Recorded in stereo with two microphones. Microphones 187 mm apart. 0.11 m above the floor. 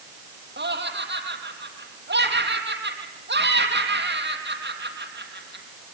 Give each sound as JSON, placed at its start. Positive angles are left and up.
{"t": 0.6, "sound": "laughter", "side_deg": -65, "distance_m": 3.0}